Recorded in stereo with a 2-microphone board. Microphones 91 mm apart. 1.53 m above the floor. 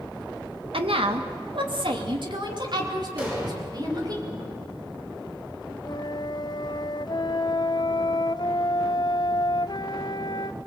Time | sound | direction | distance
0.7 | a woman speaking | 85° right | 1.6 m
3.2 | an explosion | 20° right (ahead or behind) | 6 m
5.8 | a flute | 55° left (ahead or behind) | 0.7 m